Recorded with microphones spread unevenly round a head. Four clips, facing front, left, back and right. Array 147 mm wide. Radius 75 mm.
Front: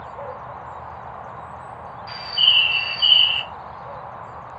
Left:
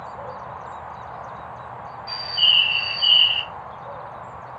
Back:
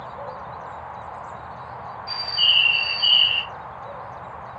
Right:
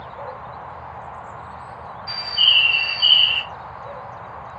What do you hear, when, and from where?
2.1 s a bird: 35° right, 1.2 m